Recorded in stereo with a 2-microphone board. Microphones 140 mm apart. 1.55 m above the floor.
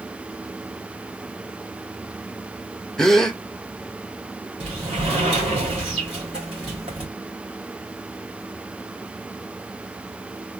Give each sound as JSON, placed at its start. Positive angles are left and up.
{"t": 3.0, "sound": "a gasp", "side_deg": 5, "distance_m": 0.6}
{"t": 4.6, "sound": "a sliding door", "side_deg": -40, "distance_m": 2.0}